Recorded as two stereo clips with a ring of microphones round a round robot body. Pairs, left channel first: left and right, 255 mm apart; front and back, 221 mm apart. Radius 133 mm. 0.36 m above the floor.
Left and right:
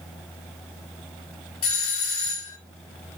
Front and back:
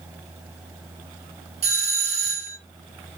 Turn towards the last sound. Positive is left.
turn(degrees=145)